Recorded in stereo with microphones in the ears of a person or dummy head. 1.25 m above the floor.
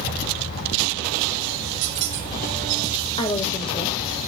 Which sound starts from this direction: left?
A woman speaking, at 3.2 s.